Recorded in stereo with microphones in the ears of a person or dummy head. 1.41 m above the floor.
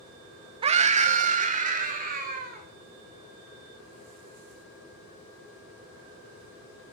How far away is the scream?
About 0.6 m.